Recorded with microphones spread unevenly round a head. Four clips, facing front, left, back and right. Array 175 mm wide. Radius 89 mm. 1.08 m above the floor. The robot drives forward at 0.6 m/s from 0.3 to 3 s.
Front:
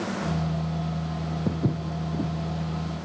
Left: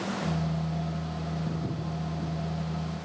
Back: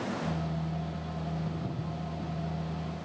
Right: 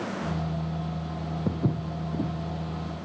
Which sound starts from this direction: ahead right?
Footsteps, at 1.5 s.